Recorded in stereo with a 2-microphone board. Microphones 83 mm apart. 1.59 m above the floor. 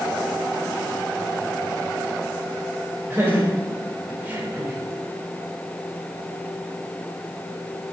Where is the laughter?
25° right (ahead or behind), 7.5 m; by 4.8 s 15° right (ahead or behind), 6 m.